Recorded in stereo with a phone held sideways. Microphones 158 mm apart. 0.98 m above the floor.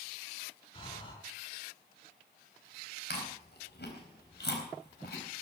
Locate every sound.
0.7 s breathing: 30° left (ahead or behind), 5.5 m
3.1 s chewing: 85° left, 4 m